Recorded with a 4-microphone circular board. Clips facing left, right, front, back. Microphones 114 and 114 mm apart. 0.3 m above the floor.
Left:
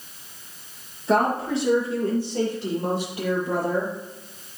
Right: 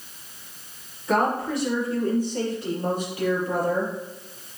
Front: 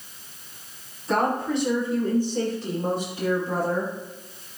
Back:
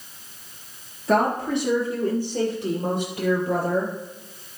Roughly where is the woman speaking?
Behind left.